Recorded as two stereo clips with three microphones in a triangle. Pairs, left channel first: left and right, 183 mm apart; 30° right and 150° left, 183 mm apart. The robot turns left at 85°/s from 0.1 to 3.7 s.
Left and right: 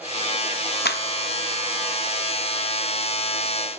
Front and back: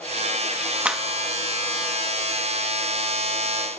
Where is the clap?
70° left, 0.7 m; by 1.0 s 55° left, 0.7 m.